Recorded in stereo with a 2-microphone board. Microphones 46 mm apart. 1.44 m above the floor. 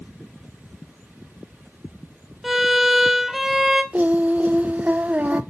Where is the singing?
35° right (ahead or behind), 0.6 m.